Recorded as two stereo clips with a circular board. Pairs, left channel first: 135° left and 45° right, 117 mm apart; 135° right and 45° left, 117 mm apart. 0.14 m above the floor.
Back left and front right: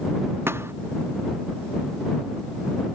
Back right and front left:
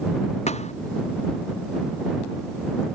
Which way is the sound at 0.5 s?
115° right.